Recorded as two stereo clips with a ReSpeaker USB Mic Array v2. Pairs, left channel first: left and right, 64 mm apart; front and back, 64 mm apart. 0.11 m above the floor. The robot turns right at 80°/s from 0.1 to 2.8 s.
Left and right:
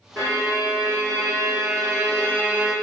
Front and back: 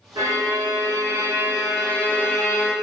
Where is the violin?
145° left, 1.3 m; by 2.7 s 5° right, 1.3 m.